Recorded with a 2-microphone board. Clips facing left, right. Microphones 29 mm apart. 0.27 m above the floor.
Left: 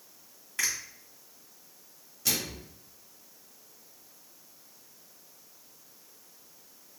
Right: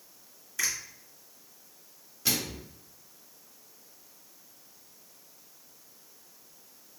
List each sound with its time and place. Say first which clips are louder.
0.6 s a finger snap: even; 50° left (ahead or behind), 1.3 m
2.2 s a microwave: right 1 dB; 15° right (ahead or behind), 0.8 m